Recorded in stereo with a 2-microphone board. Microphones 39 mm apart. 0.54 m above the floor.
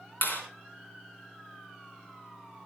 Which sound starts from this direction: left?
A clap, at 0.2 s.